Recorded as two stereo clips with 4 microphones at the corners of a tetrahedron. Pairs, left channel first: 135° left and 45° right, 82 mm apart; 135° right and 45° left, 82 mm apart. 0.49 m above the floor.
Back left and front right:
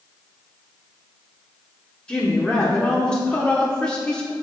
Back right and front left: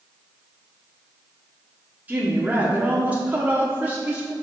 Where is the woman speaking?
80° left, 0.9 m.